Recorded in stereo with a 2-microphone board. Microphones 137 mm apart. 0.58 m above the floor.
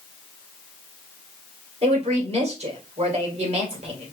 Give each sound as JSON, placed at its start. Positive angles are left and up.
{"t": 1.8, "sound": "a woman speaking", "side_deg": -50, "distance_m": 2.5}